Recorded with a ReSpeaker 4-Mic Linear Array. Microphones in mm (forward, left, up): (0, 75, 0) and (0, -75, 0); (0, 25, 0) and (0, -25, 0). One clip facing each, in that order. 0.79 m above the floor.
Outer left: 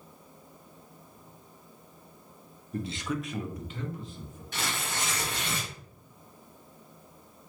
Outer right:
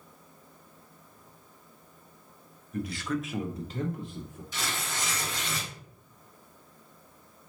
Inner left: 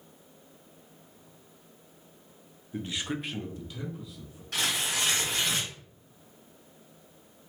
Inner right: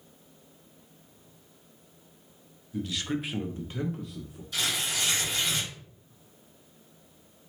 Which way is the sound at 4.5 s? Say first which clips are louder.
Outer left 1 dB, inner left 1 dB; 60° left (ahead or behind).